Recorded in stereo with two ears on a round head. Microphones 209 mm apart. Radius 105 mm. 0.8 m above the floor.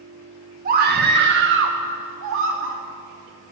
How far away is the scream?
About 1.3 m.